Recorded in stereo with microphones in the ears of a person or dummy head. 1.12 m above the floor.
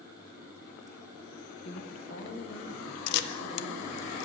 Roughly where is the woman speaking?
Left.